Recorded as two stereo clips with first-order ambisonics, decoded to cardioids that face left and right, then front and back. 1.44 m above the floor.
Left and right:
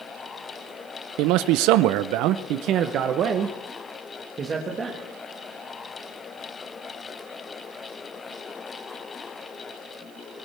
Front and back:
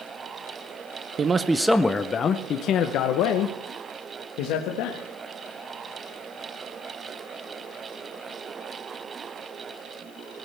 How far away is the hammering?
No hammering in this recording.